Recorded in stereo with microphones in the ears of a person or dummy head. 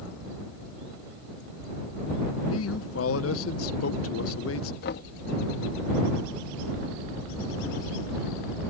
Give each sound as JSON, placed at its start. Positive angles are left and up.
{"t": 2.5, "sound": "a man speaking", "side_deg": 85}
{"t": 4.8, "sound": "knocking", "side_deg": 65}